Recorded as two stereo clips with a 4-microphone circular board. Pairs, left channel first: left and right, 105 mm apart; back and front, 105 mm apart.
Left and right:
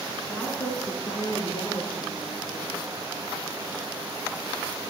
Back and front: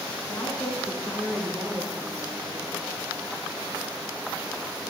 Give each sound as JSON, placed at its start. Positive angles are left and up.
{"t": 0.3, "sound": "a woman speaking", "azimuth_deg": 160, "distance_m": 1.6}